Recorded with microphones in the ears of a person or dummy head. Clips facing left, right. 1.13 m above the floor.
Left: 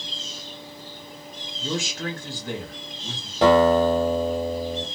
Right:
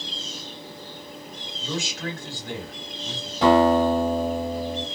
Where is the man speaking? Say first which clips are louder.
Left 2 dB; 60° left (ahead or behind), 2.0 m.